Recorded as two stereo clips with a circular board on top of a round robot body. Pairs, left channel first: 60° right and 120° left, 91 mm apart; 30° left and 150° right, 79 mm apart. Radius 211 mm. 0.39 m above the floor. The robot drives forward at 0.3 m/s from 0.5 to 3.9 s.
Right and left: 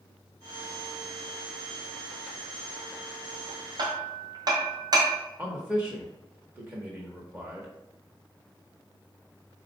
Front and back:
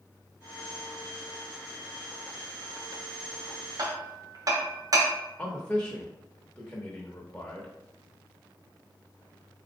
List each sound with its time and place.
3.8 s hammering: 165° left, 0.8 m
5.4 s a man speaking: 80° left, 1.4 m